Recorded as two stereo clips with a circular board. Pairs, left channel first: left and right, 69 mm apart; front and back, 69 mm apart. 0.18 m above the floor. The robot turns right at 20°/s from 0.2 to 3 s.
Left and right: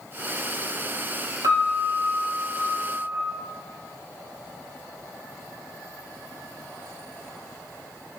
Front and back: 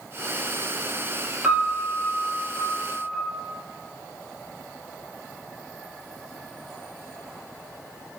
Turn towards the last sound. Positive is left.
turn(degrees=-75)